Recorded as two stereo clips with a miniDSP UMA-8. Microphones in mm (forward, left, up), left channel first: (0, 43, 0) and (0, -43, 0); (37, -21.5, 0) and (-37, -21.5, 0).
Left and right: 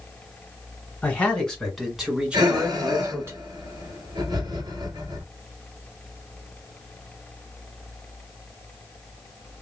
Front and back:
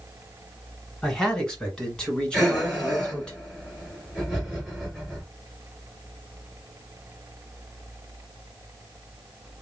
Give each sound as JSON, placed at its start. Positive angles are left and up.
{"t": 1.0, "sound": "a man speaking", "azimuth_deg": 60, "distance_m": 1.4}
{"t": 2.3, "sound": "breathing", "azimuth_deg": -85, "distance_m": 2.0}